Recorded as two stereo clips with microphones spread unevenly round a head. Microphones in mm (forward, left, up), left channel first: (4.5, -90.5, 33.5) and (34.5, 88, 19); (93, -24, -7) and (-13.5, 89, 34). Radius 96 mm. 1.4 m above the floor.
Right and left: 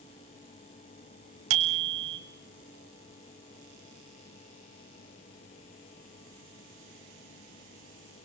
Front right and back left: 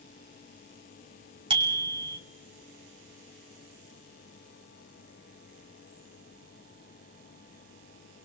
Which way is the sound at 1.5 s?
75° left.